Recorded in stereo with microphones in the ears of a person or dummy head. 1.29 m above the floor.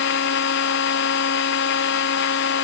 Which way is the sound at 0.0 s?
65° left (ahead or behind).